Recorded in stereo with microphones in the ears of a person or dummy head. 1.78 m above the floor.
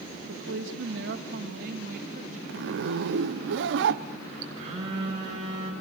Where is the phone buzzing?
40° right (ahead or behind), 5.5 m.